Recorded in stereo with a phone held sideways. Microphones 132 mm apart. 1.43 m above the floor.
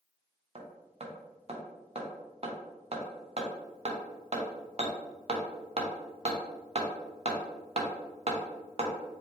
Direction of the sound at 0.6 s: 45° right (ahead or behind).